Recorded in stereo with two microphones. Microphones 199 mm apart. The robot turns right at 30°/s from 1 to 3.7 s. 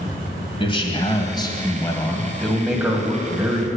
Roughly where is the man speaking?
Behind left.